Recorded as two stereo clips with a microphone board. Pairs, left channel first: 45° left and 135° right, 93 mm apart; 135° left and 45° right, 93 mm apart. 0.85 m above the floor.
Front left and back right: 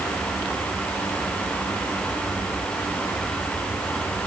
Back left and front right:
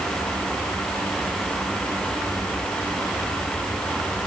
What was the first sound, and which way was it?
Only background noise.